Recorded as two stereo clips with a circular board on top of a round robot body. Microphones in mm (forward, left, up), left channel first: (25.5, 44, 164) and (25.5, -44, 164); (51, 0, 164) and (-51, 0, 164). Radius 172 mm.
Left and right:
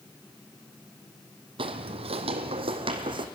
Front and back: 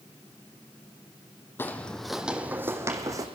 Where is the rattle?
No rattle in this recording.